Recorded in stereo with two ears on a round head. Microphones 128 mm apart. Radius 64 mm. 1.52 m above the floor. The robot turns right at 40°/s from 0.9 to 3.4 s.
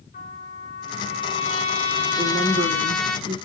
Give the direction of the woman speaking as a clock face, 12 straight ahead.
5 o'clock.